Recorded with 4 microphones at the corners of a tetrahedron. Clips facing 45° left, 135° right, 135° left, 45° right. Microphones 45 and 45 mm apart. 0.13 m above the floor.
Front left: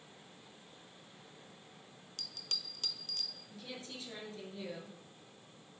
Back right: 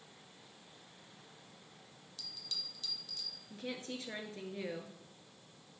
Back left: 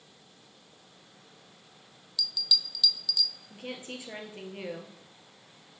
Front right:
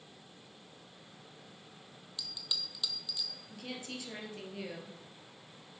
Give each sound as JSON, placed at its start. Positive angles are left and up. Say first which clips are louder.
{"t": 2.2, "sound": "a bell", "louder": "front left 2 dB, back left 9 dB", "azimuth_deg": 15, "distance_m": 0.6}
{"t": 3.5, "sound": "a woman speaking", "louder": "back right 7 dB, back left 3 dB", "azimuth_deg": -165, "distance_m": 1.8}